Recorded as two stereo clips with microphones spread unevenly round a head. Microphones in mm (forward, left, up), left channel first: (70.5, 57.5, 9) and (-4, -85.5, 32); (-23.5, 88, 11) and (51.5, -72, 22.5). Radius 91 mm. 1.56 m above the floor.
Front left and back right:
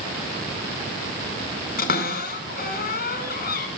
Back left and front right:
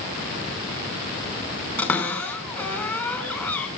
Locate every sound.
1.8 s a cupboard door: 35° left, 4.5 m